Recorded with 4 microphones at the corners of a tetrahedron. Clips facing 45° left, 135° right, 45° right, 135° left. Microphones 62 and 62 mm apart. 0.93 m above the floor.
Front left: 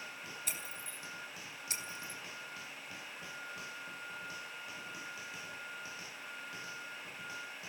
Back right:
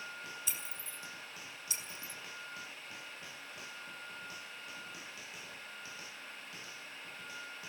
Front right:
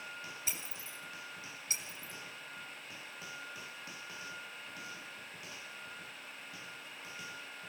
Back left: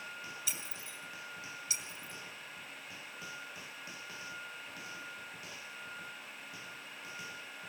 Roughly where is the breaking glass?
Ahead.